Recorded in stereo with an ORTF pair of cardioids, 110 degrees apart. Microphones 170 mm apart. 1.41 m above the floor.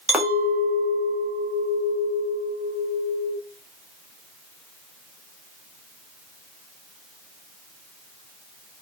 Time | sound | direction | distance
0.1 | a clink | 5° right | 1.0 m